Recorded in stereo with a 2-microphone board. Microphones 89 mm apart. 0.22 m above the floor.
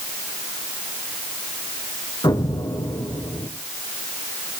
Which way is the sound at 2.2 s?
60° left (ahead or behind).